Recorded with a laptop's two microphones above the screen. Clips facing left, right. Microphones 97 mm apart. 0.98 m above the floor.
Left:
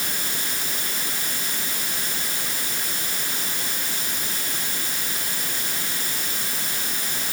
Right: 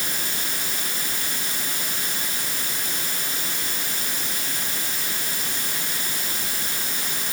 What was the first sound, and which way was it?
Only background noise.